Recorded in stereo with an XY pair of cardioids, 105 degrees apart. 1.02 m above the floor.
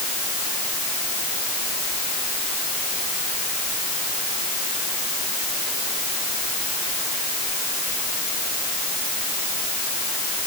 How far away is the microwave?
I don't hear a microwave.